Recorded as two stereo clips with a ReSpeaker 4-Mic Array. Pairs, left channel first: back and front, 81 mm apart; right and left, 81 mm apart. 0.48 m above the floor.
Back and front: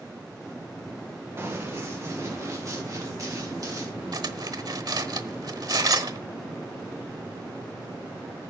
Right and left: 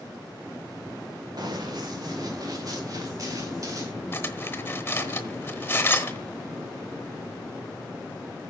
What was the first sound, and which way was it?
Running footsteps, 55° left.